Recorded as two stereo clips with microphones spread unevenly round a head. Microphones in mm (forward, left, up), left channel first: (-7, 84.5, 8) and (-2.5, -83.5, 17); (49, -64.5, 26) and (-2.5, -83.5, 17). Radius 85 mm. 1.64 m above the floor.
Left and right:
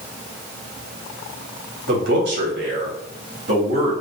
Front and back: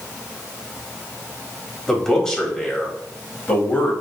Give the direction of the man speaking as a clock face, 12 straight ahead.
2 o'clock.